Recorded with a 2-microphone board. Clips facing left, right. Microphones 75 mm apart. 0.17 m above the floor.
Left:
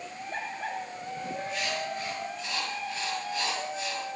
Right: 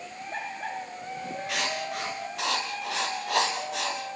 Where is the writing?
80° right, 9.5 m.